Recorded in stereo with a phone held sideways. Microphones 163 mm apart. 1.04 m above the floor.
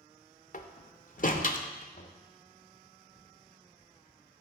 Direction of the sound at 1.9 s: 60° left (ahead or behind).